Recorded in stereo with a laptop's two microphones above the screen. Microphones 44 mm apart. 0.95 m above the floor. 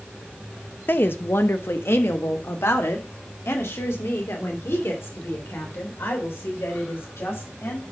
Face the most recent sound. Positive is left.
turn(degrees=85)